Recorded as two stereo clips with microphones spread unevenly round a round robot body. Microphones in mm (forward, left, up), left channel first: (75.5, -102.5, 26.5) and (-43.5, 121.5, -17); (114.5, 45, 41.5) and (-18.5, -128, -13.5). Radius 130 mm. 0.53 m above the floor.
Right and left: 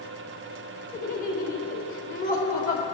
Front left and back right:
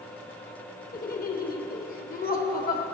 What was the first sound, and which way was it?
Laughter, straight ahead.